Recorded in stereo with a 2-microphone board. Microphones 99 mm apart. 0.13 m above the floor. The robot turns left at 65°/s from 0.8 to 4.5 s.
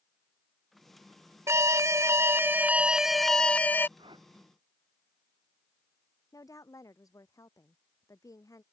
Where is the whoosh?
55° right (ahead or behind); by 4.3 s 50° right (ahead or behind).